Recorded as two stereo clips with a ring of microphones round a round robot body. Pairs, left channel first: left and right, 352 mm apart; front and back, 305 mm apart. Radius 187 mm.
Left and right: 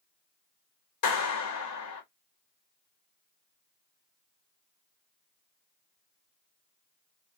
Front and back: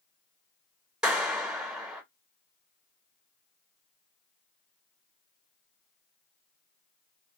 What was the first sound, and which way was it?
A clap, 95° left.